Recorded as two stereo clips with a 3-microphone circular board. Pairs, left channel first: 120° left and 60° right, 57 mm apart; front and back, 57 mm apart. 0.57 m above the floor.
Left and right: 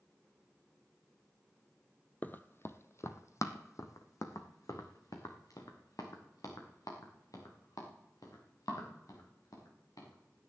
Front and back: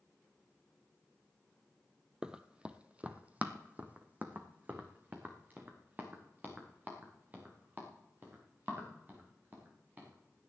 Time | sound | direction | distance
2.2 | running footsteps | 115° left | 0.6 m